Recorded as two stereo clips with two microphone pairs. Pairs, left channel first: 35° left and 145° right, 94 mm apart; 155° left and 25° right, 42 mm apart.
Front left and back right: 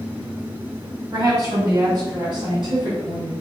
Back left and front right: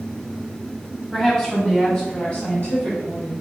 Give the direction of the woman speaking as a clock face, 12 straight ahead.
5 o'clock.